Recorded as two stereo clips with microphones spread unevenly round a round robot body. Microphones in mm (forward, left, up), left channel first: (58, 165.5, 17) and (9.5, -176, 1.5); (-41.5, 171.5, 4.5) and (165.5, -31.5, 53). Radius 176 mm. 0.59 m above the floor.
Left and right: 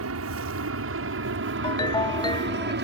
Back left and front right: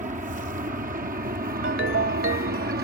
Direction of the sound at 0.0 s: 110° right.